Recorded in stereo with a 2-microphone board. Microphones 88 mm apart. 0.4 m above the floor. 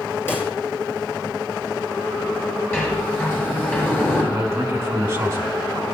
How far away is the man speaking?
About 3.5 m.